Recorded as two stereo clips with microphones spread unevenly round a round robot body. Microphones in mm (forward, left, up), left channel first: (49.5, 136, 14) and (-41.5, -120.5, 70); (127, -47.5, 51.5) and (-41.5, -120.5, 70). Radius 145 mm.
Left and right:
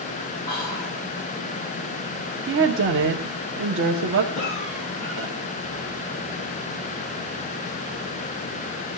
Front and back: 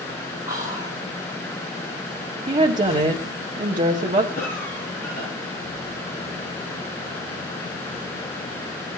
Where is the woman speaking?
135° right, 1.3 m.